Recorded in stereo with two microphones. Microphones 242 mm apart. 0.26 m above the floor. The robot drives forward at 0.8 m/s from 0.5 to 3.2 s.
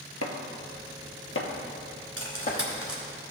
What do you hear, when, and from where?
0.2 s chopping: 85° left, 1.0 m; by 2.6 s 35° left (ahead or behind), 1.9 m
2.2 s cutlery clinking: 75° right (ahead or behind), 2 m; by 3.0 s 65° right (ahead or behind), 2 m